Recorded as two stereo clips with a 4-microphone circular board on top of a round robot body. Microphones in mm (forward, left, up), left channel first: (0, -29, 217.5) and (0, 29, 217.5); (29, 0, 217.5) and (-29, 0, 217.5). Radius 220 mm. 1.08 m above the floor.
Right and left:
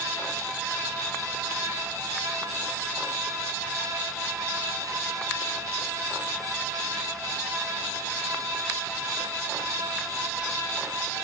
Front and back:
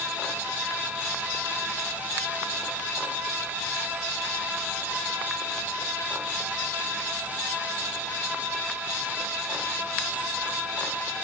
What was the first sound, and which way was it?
Only background noise.